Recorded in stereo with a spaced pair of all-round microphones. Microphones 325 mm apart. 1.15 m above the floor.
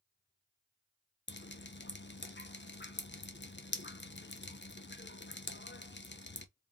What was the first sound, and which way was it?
Dripping, 35° left (ahead or behind).